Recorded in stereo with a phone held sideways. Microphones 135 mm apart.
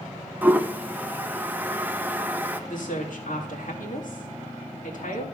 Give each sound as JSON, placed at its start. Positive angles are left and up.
{"t": 0.4, "sound": "a toilet flushing", "side_deg": -15, "distance_m": 0.6}
{"t": 2.7, "sound": "a woman speaking", "side_deg": 75, "distance_m": 2.0}